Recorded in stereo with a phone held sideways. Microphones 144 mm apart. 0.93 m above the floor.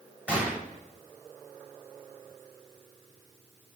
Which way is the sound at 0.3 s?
10° right (ahead or behind).